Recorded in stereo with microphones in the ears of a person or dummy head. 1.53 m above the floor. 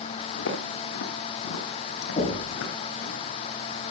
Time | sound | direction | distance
0.4 | footsteps | 75° left (ahead or behind) | 5 m
2.2 | knocking | 25° left (ahead or behind) | 6.5 m